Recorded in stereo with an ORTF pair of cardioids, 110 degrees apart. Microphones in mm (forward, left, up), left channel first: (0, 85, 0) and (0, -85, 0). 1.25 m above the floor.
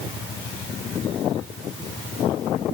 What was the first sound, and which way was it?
Only background noise.